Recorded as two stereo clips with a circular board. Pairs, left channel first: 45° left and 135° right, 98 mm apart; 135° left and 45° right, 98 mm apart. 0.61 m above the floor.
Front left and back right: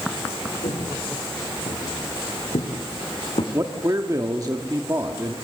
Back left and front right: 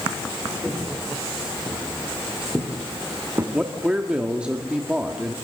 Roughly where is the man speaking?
Behind right.